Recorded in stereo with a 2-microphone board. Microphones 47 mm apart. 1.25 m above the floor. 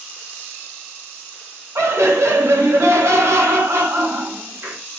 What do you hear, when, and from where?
1.8 s laughter: 75° right (ahead or behind), 0.8 m